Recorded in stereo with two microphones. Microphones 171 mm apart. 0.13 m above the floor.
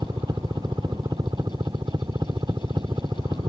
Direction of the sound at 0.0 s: 25° right (ahead or behind).